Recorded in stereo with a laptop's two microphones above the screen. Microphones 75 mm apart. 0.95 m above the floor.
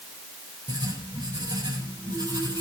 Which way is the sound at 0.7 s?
65° right (ahead or behind).